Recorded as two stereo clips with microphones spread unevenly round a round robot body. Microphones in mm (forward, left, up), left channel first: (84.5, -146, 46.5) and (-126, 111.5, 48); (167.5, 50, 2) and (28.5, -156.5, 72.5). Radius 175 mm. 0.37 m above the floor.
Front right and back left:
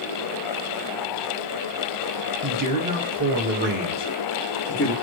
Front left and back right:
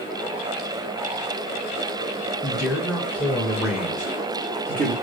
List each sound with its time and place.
2.4 s a man speaking: 120° left, 1.9 m; by 4.9 s 60° right, 1.1 m